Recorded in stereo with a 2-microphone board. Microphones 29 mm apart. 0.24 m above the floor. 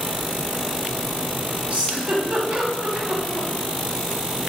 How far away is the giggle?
About 1.0 m.